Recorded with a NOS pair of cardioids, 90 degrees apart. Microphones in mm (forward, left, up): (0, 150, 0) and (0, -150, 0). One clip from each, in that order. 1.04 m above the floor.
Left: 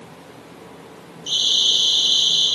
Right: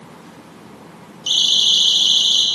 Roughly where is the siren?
Ahead right.